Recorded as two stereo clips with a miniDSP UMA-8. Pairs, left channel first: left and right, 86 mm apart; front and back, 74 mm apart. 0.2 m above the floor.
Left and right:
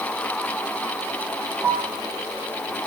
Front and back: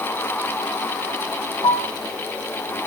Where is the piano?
10° right, 5 m.